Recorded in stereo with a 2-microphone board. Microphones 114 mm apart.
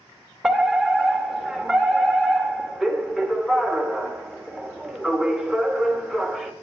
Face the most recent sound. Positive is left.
turn(degrees=0)  # may be behind; listen again after turning